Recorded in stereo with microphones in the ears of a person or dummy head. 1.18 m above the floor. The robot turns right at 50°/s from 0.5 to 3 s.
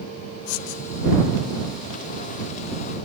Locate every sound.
0.5 s writing: 85° left; by 0.8 s 70° left (ahead or behind)